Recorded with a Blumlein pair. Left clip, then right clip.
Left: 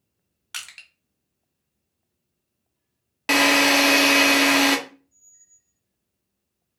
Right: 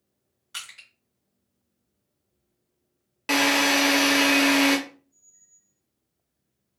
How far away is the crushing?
About 1.1 m.